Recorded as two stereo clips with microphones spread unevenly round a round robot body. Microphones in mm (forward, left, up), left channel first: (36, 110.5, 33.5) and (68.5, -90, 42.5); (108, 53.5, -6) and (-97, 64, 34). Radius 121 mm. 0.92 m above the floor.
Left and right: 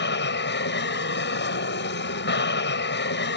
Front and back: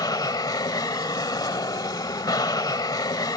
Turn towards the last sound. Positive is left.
turn(degrees=70)